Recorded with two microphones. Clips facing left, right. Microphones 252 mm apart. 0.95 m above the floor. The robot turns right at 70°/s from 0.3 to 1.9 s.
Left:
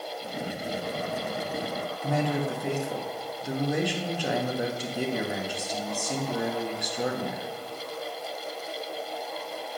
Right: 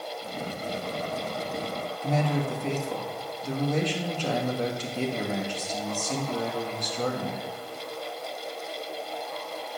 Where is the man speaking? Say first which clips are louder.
Even; 10° left (ahead or behind), 1.3 m.